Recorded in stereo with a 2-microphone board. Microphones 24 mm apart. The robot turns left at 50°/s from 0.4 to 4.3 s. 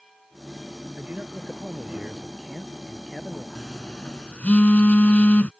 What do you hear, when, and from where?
1.0 s a man speaking: 80° right; by 3.5 s 155° left
3.5 s a phone buzzing: 150° left; by 5.5 s 115° left